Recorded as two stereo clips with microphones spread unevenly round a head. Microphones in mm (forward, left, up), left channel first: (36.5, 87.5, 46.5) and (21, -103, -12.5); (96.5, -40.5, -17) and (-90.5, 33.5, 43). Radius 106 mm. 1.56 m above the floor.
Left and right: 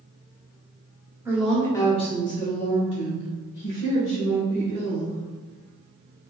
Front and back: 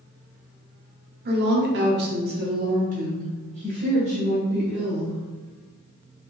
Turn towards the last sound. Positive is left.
turn(degrees=95)